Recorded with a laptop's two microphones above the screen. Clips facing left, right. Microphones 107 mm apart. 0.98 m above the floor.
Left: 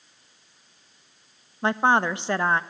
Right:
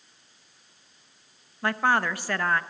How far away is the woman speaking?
About 0.7 m.